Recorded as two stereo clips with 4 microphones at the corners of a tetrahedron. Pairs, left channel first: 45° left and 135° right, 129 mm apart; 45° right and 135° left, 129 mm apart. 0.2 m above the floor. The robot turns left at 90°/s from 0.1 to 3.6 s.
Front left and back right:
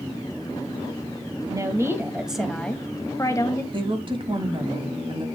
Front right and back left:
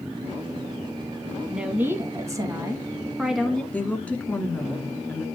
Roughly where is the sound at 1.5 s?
Behind right.